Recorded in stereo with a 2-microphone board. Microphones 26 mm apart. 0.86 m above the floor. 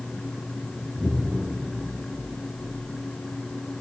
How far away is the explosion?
About 4 m.